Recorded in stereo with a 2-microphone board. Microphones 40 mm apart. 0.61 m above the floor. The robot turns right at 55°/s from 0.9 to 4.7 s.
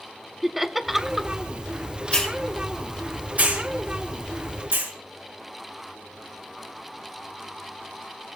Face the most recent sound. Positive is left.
turn(degrees=-60)  # may be behind; listen again after turning